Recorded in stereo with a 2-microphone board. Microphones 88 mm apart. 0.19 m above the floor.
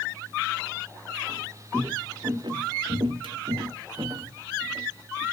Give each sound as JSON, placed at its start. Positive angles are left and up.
{"t": 1.3, "sound": "footsteps", "side_deg": -30, "distance_m": 1.2}